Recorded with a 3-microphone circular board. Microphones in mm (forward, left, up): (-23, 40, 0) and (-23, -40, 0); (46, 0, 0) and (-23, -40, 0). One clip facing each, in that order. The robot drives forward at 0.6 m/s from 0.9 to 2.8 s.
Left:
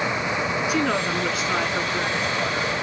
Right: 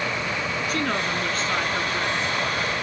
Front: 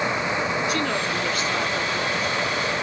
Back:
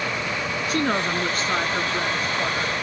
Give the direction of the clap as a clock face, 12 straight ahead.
No clap in this recording.